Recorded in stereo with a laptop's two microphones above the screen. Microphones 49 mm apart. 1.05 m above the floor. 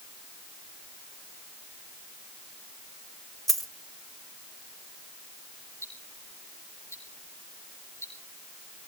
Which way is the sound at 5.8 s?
65° left (ahead or behind).